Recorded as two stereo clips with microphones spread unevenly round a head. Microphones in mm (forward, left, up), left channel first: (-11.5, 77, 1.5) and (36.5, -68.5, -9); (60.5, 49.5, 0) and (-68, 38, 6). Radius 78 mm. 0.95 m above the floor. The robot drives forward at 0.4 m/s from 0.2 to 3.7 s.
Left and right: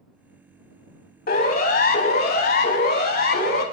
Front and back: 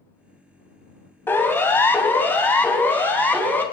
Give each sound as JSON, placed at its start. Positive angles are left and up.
{"t": 1.3, "sound": "a siren", "azimuth_deg": 80, "distance_m": 4.5}